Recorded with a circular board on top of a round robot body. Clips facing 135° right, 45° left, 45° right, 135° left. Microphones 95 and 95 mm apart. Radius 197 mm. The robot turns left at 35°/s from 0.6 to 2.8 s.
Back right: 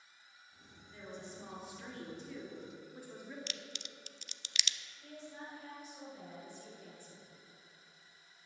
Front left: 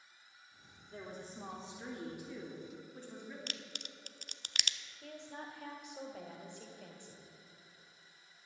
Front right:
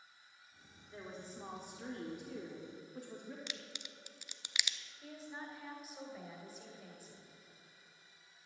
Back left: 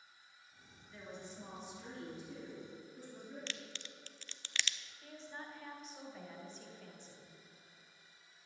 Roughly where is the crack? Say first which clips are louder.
Even, back left 1 dB; ahead left.